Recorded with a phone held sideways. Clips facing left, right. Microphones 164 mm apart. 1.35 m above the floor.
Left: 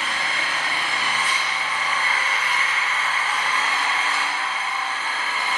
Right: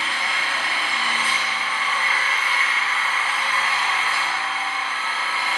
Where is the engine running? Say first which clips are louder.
Even; 45° left (ahead or behind), 1.1 m.